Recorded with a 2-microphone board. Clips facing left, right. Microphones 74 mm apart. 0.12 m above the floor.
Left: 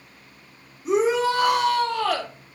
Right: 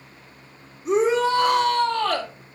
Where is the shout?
5° left (ahead or behind), 4.5 m.